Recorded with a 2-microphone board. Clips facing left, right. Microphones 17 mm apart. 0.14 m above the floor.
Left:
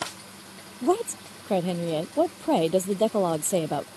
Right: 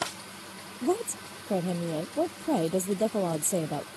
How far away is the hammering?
No hammering in this recording.